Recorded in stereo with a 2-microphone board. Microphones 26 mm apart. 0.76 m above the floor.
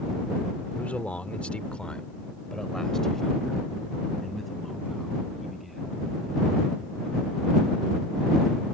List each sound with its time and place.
0.8 s a man speaking: 75° left (ahead or behind); by 5.9 s centre (ahead or behind)